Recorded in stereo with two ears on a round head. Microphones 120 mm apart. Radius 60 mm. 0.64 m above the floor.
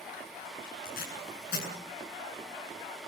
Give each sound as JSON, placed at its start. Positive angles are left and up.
{"t": 0.8, "sound": "tape being pulled", "side_deg": 80, "distance_m": 7.5}